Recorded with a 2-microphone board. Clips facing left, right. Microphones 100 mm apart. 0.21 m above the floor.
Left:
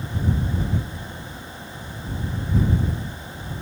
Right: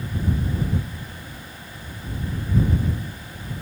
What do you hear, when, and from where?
Only background noise.